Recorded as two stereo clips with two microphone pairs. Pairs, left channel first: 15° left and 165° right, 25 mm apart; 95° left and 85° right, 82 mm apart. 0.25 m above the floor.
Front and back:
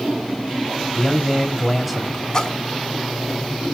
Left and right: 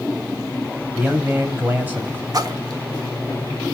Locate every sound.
0.9 s a man speaking: 75° right, 0.9 m
2.3 s a splash: 45° right, 0.8 m